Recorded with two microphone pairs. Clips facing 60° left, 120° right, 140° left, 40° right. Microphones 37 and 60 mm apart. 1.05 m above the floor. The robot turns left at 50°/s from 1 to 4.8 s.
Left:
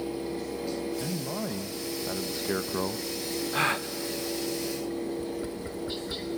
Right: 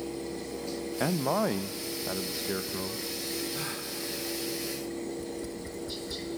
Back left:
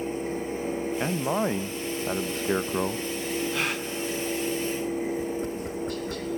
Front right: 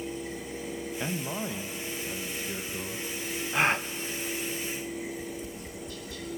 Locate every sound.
1.0 s a man speaking: 155° right, 0.6 m; by 3.1 s 100° left, 0.6 m
3.5 s a gasp: 30° left, 0.6 m; by 3.9 s 15° left, 0.6 m
5.1 s tapping: 115° left, 1.3 m